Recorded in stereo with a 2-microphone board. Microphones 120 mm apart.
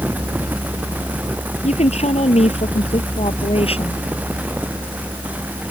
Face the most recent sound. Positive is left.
turn(degrees=55)  # may be behind; listen again after turning